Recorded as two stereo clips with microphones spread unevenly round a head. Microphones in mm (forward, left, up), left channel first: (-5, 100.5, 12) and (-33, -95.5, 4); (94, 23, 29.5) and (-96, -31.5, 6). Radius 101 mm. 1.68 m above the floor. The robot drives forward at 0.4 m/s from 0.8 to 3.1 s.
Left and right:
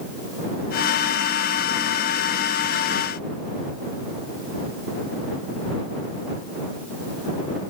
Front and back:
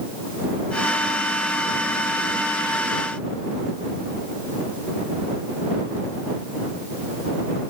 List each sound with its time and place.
Only background noise.